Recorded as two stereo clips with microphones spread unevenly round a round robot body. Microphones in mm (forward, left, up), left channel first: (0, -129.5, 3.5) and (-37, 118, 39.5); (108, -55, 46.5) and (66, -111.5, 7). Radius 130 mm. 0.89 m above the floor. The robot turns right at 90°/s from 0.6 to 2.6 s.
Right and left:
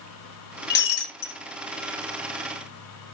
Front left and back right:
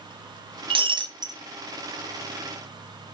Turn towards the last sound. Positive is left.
turn(degrees=35)